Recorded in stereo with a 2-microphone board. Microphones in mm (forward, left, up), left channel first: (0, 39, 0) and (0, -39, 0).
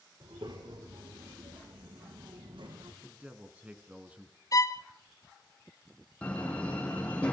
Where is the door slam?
15° left (ahead or behind), 7.5 m.